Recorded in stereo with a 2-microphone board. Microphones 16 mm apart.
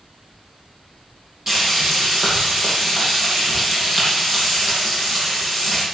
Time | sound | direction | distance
1.5 | frying | 30° right (ahead or behind) | 7.5 m